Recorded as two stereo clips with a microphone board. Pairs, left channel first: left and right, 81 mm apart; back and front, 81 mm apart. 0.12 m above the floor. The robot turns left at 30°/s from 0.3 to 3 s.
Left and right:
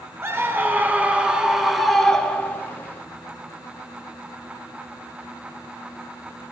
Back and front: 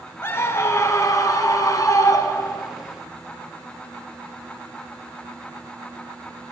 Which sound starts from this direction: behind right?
A scream, at 0.2 s.